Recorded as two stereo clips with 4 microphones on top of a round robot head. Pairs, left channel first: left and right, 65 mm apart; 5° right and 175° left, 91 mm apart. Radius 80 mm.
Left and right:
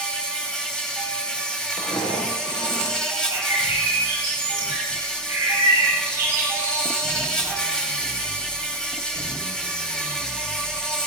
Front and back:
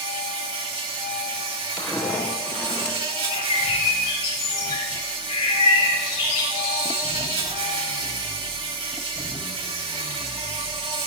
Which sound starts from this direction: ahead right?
A bird, at 3.3 s.